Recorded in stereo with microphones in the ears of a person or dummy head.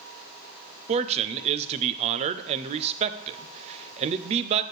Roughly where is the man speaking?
Right.